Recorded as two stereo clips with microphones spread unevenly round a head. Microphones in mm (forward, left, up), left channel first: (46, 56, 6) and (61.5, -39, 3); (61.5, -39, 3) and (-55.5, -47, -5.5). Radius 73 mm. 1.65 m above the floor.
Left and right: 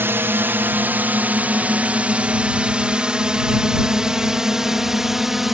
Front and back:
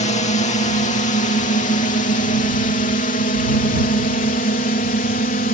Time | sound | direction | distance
0.0 | a drone | 15° right | ?